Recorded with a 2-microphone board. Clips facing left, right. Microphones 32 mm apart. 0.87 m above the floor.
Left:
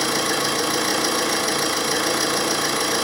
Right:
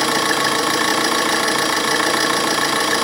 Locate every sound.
0.0 s an engine running: 65° right (ahead or behind), 1.5 m